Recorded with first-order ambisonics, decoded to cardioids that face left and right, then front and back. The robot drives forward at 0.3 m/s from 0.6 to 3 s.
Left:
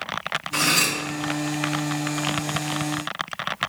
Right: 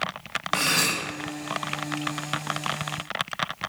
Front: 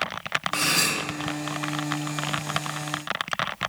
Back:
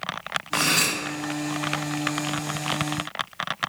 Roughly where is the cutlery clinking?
Left.